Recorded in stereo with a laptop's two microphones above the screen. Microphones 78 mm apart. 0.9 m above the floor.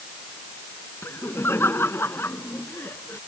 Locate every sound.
1.0 s laughter: 30° left (ahead or behind)